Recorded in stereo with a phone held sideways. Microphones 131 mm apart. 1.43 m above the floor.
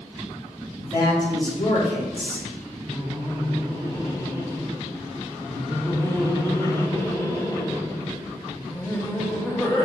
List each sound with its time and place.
0.8 s a man speaking: 35° left (ahead or behind), 3.5 m
2.9 s laughter: 20° left (ahead or behind), 1.3 m